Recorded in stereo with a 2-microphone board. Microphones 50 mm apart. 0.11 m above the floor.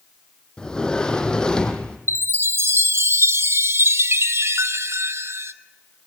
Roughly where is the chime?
Right.